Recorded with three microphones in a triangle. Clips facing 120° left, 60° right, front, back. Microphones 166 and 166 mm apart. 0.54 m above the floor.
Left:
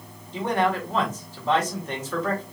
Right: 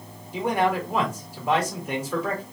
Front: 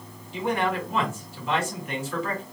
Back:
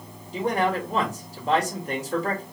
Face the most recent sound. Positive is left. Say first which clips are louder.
# right 1 dB, back 2 dB
turn(degrees=-135)